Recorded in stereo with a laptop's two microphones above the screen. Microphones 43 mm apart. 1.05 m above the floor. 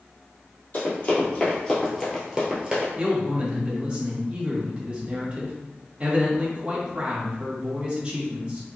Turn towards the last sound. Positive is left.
turn(degrees=-25)  # may be behind; listen again after turning